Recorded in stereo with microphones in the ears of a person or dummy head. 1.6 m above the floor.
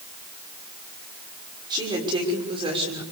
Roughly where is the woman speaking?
Right.